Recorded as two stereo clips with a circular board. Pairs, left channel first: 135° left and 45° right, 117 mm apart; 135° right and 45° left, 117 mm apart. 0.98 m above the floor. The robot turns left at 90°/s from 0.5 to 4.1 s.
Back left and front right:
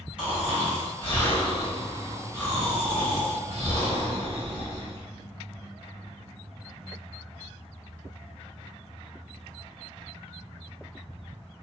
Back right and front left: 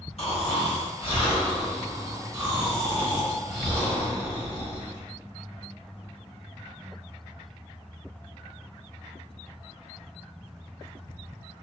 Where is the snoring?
120° right, 1.5 m; by 5.1 s 85° right, 1.5 m.